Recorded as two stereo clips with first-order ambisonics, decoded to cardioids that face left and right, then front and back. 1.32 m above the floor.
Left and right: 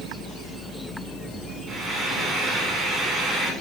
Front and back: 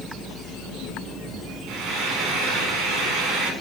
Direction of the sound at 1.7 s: 155° right.